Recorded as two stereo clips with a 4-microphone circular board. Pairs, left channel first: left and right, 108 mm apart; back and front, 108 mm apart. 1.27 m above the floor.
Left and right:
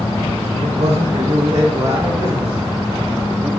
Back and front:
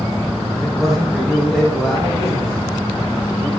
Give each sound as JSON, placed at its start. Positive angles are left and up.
{"t": 0.5, "sound": "a man speaking", "azimuth_deg": -95, "distance_m": 0.6}